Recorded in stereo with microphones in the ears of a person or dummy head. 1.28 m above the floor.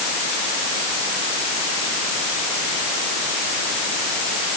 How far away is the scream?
No scream in this recording.